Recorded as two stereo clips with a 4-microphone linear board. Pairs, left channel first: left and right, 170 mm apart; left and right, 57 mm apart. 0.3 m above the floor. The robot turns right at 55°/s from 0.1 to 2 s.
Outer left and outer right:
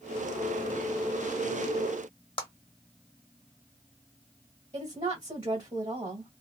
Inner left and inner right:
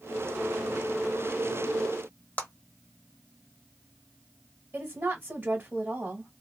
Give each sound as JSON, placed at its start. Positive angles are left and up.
{"t": 2.4, "sound": "a clap", "side_deg": 30, "distance_m": 0.9}
{"t": 4.7, "sound": "a woman speaking", "side_deg": -30, "distance_m": 1.6}